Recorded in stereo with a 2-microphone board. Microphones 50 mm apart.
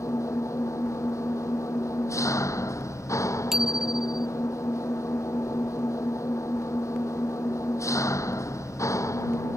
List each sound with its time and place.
0.0 s an engine running: 65° left (ahead or behind)
3.5 s a bicycle bell: 10° right (ahead or behind)